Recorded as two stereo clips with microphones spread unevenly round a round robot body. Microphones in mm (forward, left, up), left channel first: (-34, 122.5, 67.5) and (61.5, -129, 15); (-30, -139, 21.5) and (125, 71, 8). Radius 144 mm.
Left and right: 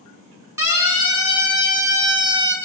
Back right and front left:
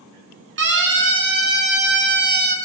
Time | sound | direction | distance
0.6 | a siren | 10° left | 9.5 m